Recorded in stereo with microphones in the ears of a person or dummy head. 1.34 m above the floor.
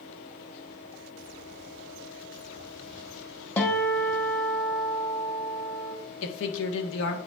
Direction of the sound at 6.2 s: 75° left (ahead or behind).